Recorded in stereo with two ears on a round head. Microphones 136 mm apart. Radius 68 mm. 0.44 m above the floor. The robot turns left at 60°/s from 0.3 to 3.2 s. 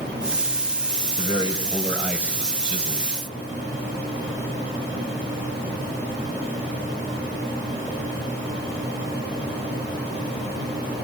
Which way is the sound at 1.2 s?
50° left.